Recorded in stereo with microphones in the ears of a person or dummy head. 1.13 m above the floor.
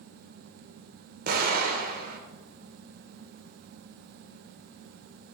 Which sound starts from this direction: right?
An explosion, at 1.3 s.